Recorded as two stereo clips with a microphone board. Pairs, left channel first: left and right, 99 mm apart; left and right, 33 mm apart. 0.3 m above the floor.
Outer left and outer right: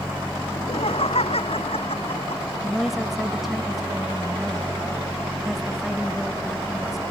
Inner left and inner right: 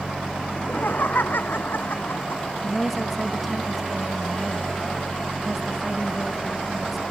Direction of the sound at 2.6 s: 5° right (ahead or behind).